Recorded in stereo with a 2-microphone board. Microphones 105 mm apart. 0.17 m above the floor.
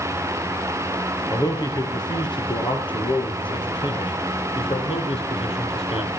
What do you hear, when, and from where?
1.3 s a man speaking: 35° left (ahead or behind), 4 m; by 6.1 s 65° left (ahead or behind), 6 m